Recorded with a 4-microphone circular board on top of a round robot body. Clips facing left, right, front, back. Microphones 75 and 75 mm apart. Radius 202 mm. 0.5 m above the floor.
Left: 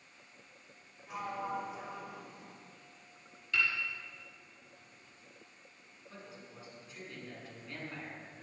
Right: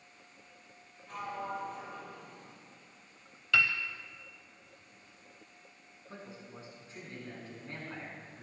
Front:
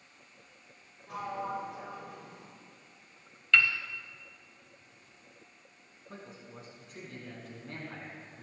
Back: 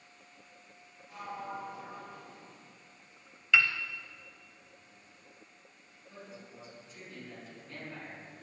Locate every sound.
1.1 s a sliding door: 10° left, 3 m
3.5 s a piano: 95° right, 0.7 m
6.1 s a man speaking: 30° right, 6 m